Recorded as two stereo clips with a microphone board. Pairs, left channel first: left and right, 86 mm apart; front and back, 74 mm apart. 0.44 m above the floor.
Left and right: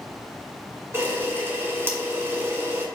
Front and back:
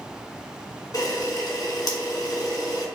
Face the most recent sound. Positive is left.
turn(degrees=-30)